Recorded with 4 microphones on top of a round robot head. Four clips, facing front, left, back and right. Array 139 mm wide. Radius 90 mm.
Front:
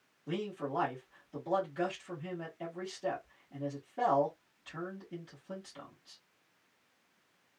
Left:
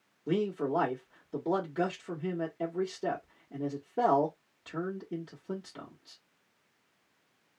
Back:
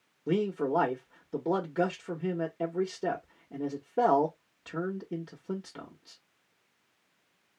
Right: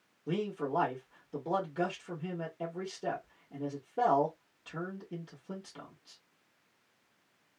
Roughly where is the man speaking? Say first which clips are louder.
Left 4 dB, back 9 dB; behind.